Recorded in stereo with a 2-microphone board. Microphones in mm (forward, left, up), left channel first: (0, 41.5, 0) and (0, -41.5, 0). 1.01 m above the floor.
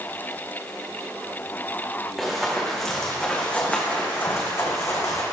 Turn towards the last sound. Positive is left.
turn(degrees=45)  # may be behind; listen again after turning